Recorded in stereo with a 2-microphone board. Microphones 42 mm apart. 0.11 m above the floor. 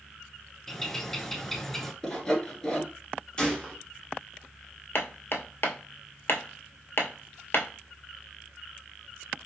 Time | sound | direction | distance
0.7 | a bird | 5° left (ahead or behind) | 0.5 m
2.0 | sawing | 10° left (ahead or behind) | 1.1 m
3.4 | a gunshot | 20° left (ahead or behind) | 1.1 m
5.0 | hammering | 50° left (ahead or behind) | 0.7 m